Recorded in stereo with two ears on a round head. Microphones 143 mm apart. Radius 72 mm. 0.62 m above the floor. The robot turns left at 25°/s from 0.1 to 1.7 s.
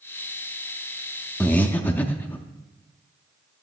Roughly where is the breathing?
Centre.